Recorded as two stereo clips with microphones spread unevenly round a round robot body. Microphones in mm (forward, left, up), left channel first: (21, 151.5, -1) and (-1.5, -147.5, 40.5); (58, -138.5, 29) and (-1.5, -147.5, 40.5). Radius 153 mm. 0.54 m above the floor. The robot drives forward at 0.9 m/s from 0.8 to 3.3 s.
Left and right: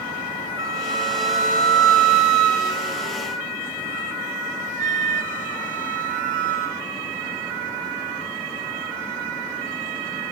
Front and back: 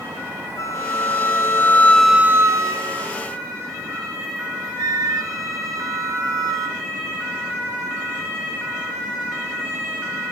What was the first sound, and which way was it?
A flute, 15° right.